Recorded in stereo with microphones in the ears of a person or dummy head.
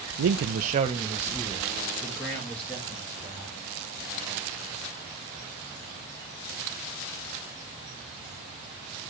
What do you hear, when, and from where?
0.2 s a man speaking: 90° right, 0.6 m; by 3.5 s 10° left (ahead or behind), 2.5 m